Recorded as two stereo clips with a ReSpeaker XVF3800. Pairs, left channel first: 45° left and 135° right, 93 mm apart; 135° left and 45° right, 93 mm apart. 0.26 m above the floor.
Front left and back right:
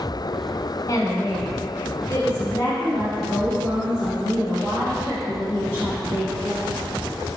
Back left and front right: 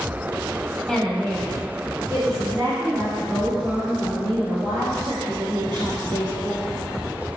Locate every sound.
0.9 s a woman speaking: 55° left, 1.4 m; by 6.7 s 25° right, 5 m